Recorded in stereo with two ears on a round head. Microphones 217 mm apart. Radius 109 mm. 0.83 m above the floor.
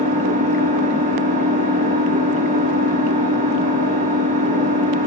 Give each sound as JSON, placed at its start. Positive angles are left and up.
{"t": 0.0, "sound": "an engine running", "side_deg": -35, "distance_m": 6.0}